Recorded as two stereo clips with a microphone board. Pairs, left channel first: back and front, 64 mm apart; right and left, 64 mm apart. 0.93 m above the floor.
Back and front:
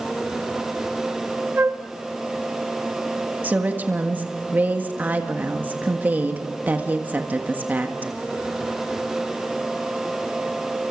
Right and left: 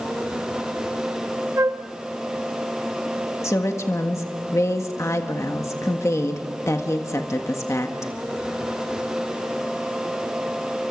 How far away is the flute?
About 1.1 m.